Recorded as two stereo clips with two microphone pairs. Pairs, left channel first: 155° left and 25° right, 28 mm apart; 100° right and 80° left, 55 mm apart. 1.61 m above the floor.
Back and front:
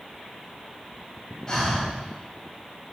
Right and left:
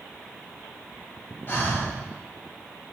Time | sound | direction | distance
1.5 | breathing | 140° right | 3.5 m